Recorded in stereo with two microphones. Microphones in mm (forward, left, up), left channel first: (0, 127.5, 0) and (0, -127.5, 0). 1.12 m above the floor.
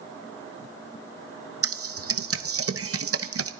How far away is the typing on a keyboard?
About 0.7 m.